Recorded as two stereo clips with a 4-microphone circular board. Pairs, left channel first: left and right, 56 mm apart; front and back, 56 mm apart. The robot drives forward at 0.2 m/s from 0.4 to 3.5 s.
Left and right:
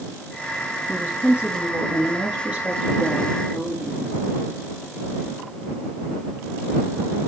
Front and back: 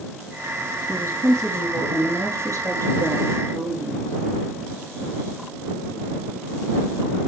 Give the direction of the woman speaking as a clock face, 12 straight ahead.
5 o'clock.